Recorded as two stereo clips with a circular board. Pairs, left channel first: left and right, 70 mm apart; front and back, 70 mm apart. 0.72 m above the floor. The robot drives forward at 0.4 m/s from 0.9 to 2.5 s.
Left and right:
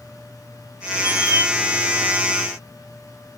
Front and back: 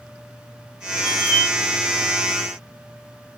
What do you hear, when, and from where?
1.0 s a squeak: 85° left, 1.2 m; by 1.5 s 95° left, 1.2 m